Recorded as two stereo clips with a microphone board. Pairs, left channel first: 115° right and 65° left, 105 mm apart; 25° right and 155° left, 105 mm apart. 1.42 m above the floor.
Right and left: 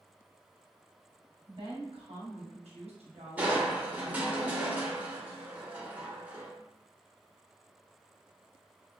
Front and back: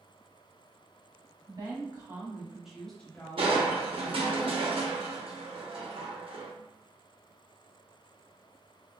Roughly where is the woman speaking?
Left.